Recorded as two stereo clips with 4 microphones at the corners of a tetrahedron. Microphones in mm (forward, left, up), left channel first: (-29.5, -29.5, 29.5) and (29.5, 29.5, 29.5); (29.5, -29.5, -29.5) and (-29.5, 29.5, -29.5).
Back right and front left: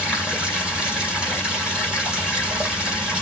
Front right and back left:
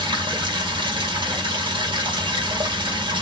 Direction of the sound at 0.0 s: 125° left.